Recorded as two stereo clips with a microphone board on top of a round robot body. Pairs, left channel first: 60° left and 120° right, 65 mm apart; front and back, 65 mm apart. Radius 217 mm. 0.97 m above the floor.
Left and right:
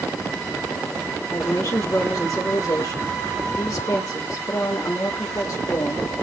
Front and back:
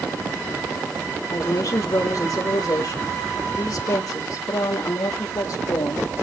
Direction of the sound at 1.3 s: 25° left.